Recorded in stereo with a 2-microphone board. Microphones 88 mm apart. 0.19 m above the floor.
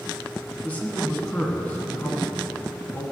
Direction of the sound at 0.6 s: 20° left (ahead or behind).